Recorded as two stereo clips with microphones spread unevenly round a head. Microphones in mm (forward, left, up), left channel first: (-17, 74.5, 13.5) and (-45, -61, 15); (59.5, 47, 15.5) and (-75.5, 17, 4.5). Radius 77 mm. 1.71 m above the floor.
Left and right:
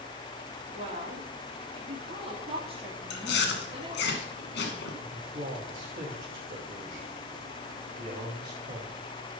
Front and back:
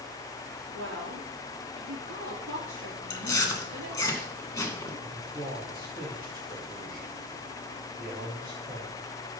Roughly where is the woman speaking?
Behind right.